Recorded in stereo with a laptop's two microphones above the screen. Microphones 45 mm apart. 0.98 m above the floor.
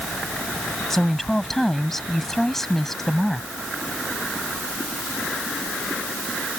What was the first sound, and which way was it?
A woman speaking, 5° left (ahead or behind).